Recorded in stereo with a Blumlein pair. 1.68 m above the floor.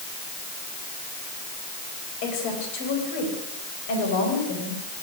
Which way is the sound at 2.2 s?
45° left.